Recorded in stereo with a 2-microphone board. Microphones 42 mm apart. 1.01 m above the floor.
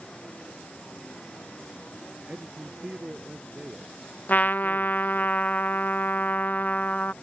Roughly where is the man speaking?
Right.